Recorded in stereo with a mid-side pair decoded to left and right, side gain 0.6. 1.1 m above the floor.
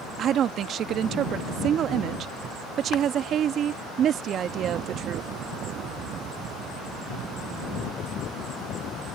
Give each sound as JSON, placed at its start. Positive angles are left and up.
{"t": 0.2, "sound": "a woman speaking", "azimuth_deg": -50}